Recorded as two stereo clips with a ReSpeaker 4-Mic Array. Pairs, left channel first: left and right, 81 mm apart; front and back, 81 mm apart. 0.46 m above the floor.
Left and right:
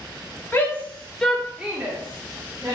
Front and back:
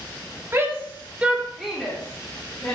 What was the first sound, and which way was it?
A shout, 140° left.